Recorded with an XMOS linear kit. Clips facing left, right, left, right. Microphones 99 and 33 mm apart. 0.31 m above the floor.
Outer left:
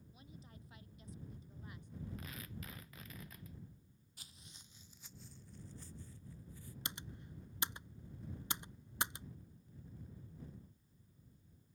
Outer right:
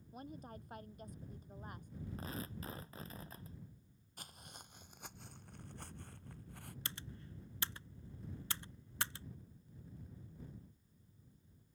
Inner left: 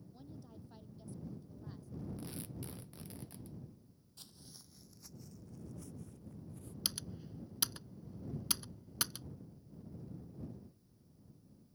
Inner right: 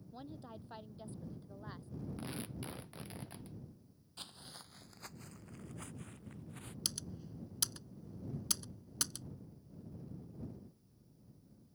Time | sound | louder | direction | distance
0.1 | a woman speaking | outer right 11 dB, inner right 6 dB | 50° right (ahead or behind) | ?
2.2 | tearing paper | outer right 5 dB, inner right 2 dB | 35° right (ahead or behind) | ?
4.2 | footsteps | outer right 8 dB, inner right 7 dB | 55° right (ahead or behind) | ?
6.8 | typing on a keyboard | outer left 4 dB, inner left 2 dB | 20° left (ahead or behind) | ?